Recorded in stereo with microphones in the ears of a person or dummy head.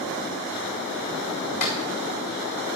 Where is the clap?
45° left (ahead or behind), 3.5 m.